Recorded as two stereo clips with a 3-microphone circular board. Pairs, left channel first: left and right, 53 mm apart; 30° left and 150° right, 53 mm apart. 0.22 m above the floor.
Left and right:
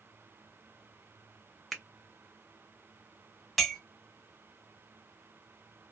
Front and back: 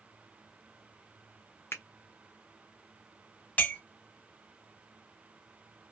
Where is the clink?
Straight ahead, 0.7 m.